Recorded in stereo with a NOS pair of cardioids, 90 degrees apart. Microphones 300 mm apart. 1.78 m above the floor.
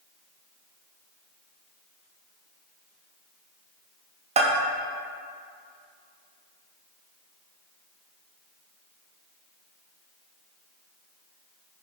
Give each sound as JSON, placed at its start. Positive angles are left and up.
{"t": 4.4, "sound": "a bell", "azimuth_deg": -20, "distance_m": 0.5}